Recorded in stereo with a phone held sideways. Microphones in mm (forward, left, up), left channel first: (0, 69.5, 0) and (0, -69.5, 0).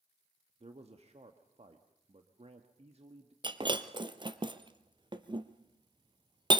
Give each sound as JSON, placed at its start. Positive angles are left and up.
{"t": 0.6, "sound": "a man speaking", "side_deg": -50, "distance_m": 1.7}
{"t": 3.4, "sound": "breaking glass", "side_deg": -35, "distance_m": 1.1}